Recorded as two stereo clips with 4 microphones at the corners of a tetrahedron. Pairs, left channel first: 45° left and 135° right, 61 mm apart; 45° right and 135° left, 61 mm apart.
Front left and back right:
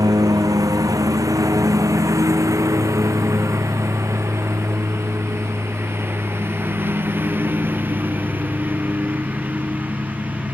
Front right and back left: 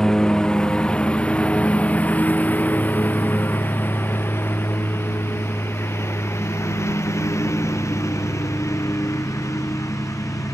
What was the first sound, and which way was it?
A lawn mower, 125° right.